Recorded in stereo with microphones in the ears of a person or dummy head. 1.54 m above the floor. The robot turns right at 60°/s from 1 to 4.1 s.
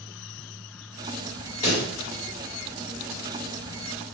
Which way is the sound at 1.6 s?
30° left (ahead or behind).